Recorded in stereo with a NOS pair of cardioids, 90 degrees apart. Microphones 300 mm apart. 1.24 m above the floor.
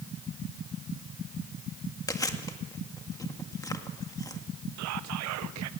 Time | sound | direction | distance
2.1 | chewing | 10° left | 1.7 m
4.8 | whispering | 70° right | 0.6 m